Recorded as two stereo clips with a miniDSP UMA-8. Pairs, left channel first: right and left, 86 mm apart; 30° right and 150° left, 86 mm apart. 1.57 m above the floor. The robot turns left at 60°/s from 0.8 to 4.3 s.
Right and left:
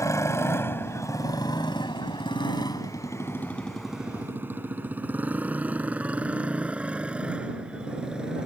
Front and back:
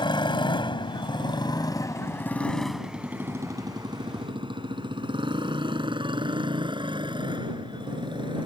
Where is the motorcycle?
40° right; by 8.5 s 170° left.